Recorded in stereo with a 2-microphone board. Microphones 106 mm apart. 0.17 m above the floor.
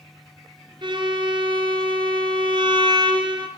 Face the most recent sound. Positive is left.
turn(degrees=-50)  # may be behind; listen again after turning